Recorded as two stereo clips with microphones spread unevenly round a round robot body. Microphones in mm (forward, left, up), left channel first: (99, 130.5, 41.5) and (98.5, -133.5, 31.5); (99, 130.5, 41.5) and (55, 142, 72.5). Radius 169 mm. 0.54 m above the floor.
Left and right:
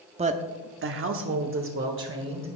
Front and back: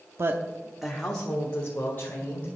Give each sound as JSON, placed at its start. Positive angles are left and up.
{"t": 0.2, "sound": "a woman speaking", "azimuth_deg": -140, "distance_m": 0.7}